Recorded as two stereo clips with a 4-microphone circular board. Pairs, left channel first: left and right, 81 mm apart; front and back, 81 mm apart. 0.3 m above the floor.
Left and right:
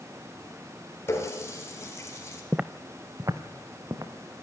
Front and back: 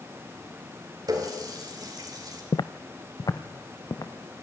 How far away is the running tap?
About 3.5 m.